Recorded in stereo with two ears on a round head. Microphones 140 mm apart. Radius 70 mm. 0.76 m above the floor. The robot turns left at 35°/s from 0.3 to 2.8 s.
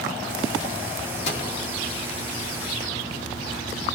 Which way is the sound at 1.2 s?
40° left (ahead or behind).